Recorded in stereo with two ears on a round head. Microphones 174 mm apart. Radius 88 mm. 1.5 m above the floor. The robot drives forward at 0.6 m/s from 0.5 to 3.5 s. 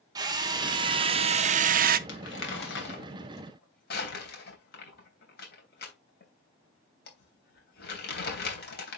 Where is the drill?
20° right (ahead or behind), 1.2 m; by 2.0 s 45° right (ahead or behind), 0.5 m.